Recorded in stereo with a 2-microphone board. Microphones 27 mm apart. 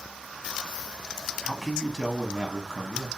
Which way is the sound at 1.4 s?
5° right (ahead or behind).